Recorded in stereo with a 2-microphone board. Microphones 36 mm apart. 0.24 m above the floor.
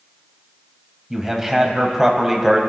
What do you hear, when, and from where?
1.1 s a man speaking: 10° right (ahead or behind), 1.1 m